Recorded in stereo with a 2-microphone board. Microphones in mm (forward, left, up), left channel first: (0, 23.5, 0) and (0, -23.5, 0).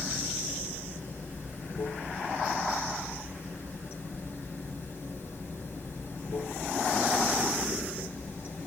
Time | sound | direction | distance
0.0 | running water | 45° left (ahead or behind) | 3.5 m